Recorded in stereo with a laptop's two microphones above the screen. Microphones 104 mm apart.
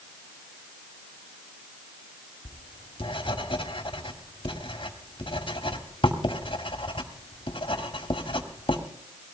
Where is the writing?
55° left (ahead or behind), 2 m.